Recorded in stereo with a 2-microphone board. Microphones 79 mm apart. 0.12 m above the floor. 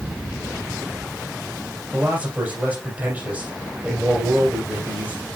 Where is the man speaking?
20° right (ahead or behind), 3.5 m.